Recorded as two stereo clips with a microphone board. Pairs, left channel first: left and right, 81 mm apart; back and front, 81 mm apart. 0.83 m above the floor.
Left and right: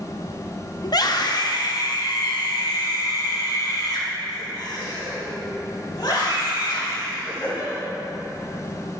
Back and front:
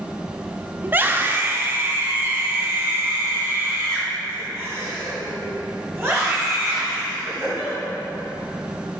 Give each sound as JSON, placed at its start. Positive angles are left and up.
{"t": 0.8, "sound": "a scream", "azimuth_deg": 65, "distance_m": 0.7}